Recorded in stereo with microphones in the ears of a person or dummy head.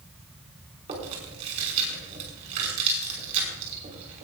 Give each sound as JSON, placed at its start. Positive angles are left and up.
{"t": 0.9, "sound": "chewing", "side_deg": -35, "distance_m": 5.5}